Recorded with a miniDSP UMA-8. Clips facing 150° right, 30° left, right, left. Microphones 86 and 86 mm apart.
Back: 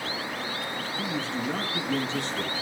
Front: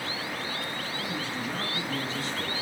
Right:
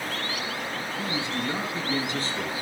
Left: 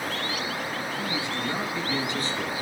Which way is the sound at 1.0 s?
155° right.